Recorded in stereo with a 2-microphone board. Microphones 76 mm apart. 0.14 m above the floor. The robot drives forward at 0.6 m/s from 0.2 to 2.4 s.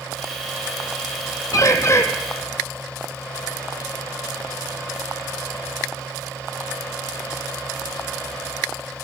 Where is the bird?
50° left (ahead or behind), 1.0 m; by 2.0 s 40° left (ahead or behind), 1.2 m.